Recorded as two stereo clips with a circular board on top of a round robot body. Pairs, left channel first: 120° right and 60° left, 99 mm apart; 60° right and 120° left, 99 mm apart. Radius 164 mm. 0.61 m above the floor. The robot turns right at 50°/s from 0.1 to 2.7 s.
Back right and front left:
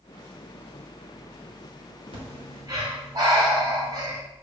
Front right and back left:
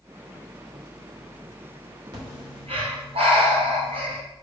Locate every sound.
2.1 s breathing: 80° left, 3.5 m; by 4.2 s 105° left, 3.5 m